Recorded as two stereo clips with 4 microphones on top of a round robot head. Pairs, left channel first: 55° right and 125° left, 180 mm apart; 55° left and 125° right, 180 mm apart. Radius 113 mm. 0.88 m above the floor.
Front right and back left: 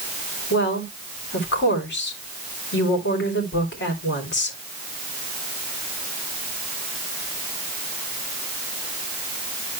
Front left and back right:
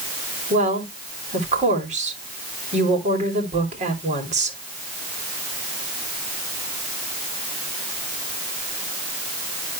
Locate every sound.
0.5 s a woman speaking: 75° right, 3 m